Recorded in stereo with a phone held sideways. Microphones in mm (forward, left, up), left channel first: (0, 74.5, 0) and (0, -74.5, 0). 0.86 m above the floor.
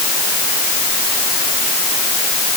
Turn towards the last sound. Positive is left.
No sound to turn to.